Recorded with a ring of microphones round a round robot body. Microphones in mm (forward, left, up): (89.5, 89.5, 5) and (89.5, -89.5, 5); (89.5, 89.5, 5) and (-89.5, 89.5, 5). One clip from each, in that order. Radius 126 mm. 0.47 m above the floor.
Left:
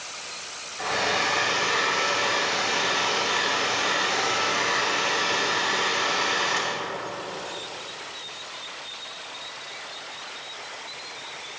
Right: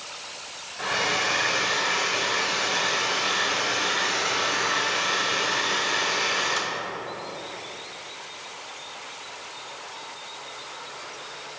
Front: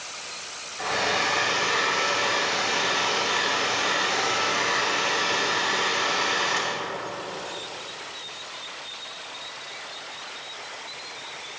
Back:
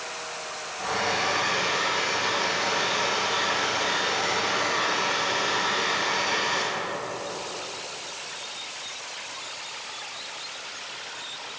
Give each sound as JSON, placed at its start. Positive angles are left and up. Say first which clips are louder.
{"t": 0.8, "sound": "a hair dryer", "louder": "even, front 2 dB", "azimuth_deg": -45, "distance_m": 1.6}